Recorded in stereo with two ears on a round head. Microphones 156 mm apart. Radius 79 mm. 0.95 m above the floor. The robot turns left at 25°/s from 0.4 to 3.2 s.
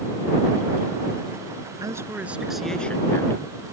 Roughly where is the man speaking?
Behind.